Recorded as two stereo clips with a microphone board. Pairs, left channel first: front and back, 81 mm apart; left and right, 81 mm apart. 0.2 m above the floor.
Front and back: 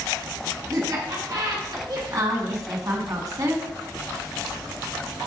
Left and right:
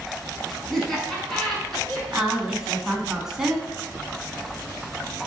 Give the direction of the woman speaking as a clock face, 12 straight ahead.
6 o'clock.